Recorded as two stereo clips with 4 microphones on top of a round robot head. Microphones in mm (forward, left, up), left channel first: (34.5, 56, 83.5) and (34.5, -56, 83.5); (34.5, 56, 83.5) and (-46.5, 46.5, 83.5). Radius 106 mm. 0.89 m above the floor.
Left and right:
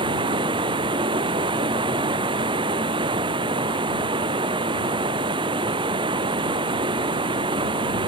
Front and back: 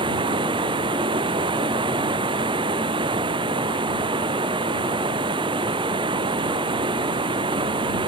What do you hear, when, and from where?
0.0 s running water: 140° right